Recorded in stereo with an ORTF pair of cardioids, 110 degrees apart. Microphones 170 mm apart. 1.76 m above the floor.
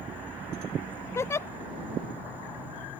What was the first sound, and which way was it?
An insect, 10° right.